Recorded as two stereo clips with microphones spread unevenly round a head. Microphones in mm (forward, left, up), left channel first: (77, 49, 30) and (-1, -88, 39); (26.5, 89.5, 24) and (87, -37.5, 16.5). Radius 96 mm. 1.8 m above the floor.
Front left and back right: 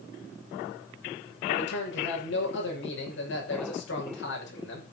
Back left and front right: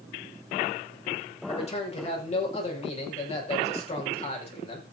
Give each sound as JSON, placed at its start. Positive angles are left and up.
{"t": 1.5, "sound": "a man speaking", "azimuth_deg": 75, "distance_m": 6.5}